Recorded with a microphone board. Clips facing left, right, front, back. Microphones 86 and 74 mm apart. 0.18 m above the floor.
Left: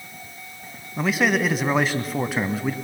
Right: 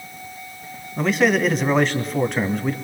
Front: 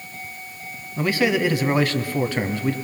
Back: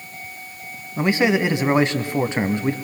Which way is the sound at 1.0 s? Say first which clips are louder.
Right 3 dB, back 2 dB; 170° left.